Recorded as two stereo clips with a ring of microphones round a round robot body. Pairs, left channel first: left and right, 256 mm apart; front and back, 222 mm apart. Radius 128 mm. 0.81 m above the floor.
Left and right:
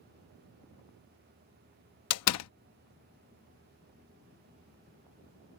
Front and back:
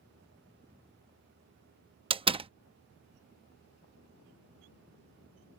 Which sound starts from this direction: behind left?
A door slam, at 2.1 s.